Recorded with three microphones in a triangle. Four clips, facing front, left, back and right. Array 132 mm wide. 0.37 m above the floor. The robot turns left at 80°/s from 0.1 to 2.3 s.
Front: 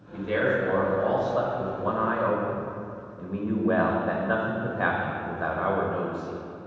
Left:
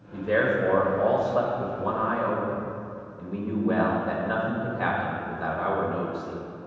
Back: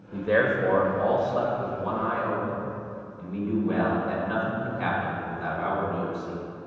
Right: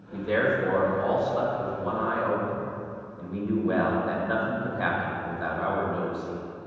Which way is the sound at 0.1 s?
Straight behind.